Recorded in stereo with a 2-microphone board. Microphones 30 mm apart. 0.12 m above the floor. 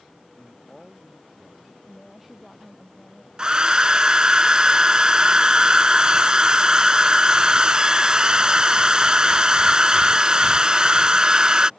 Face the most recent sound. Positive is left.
turn(degrees=-30)  # may be behind; listen again after turning